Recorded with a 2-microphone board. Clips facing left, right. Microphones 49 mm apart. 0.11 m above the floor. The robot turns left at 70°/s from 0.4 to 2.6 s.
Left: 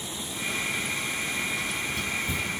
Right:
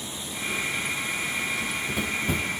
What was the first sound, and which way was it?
Running footsteps, 70° right (ahead or behind).